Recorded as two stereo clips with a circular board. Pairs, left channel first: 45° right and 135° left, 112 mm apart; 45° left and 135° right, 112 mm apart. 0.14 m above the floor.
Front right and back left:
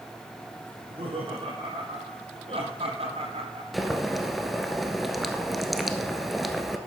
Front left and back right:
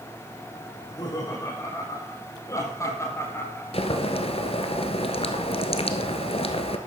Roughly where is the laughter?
Left.